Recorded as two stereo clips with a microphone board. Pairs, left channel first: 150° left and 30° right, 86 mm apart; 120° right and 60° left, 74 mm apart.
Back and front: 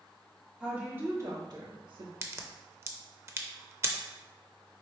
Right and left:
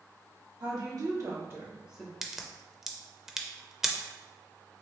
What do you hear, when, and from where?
0.6 s a woman speaking: 50° left, 1.5 m; by 2.1 s 30° right, 1.3 m
2.2 s a crack: 25° right, 0.5 m